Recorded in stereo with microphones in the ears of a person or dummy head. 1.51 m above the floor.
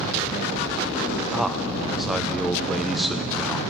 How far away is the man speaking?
About 0.7 m.